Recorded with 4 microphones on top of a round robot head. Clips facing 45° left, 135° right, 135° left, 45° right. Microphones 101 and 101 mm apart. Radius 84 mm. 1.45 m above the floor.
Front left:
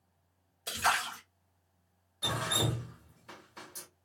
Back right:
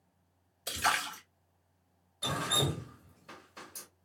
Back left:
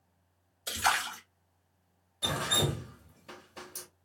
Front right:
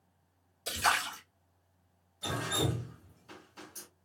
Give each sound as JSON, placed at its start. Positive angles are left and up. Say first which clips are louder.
{"t": 0.7, "sound": "a splash", "louder": "front left 1 dB, back left 1 dB", "azimuth_deg": -55, "distance_m": 1.3}
{"t": 2.2, "sound": "dripping", "louder": "even, back left 1 dB", "azimuth_deg": 135, "distance_m": 0.9}